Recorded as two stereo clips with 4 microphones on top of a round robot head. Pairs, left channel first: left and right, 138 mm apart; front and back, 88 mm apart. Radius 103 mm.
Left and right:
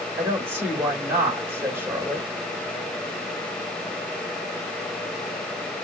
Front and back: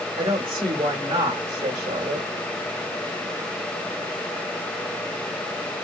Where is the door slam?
No door slam in this recording.